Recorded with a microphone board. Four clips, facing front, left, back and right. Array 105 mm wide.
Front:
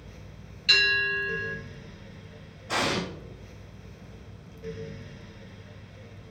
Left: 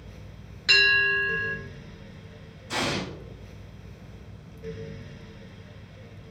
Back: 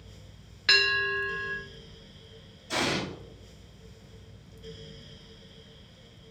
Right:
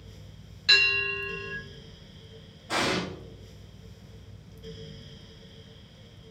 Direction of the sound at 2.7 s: 25° right.